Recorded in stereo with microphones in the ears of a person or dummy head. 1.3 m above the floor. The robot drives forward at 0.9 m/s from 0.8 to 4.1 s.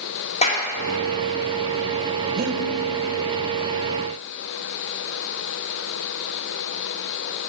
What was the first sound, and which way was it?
A clap, 35° left (ahead or behind).